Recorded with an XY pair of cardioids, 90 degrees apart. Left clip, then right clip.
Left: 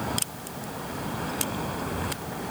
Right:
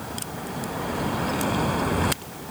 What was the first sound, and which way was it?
Only background noise.